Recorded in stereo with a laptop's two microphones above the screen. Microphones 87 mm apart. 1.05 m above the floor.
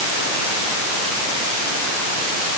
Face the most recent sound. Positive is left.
No sound to turn to.